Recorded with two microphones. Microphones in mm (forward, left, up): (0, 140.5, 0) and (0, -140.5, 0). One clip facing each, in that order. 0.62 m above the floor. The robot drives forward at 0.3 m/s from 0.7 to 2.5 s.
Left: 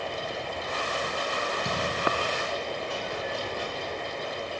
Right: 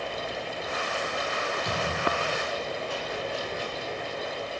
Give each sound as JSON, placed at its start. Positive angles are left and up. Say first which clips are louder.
{"t": 0.0, "sound": "running water", "louder": "even", "side_deg": 70, "distance_m": 6.0}
{"t": 1.6, "sound": "a thud", "louder": "even", "side_deg": 55, "distance_m": 3.0}